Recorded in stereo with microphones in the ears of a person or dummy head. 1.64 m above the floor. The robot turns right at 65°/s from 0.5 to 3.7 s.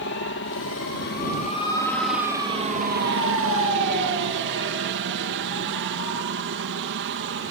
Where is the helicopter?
75° left; by 7.5 s 75° right.